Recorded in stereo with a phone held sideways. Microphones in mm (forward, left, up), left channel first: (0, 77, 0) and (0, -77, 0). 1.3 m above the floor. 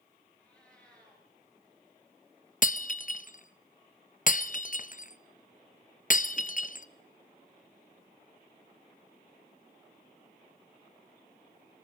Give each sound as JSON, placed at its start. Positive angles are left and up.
{"t": 0.4, "sound": "a cat meowing", "side_deg": 5, "distance_m": 8.5}
{"t": 2.6, "sound": "breaking glass", "side_deg": 55, "distance_m": 0.6}